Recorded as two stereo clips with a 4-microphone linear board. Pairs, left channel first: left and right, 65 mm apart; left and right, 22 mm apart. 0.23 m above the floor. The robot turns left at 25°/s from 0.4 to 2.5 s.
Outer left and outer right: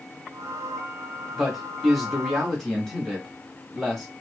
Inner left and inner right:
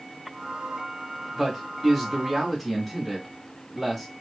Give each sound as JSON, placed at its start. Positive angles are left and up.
{"t": 1.4, "sound": "a man speaking", "side_deg": -5, "distance_m": 1.5}